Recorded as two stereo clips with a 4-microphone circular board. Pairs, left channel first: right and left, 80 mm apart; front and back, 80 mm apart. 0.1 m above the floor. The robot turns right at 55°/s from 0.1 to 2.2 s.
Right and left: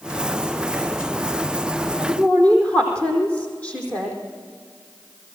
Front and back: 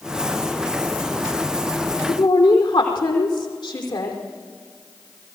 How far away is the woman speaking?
About 4.5 m.